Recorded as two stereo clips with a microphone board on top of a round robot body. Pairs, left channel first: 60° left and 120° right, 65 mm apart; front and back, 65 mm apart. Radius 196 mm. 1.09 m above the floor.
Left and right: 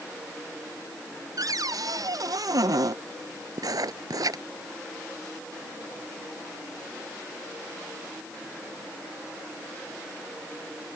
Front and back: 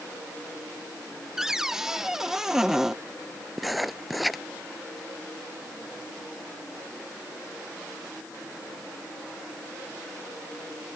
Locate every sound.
1.4 s a cupboard door: 100° right
3.6 s writing: 95° right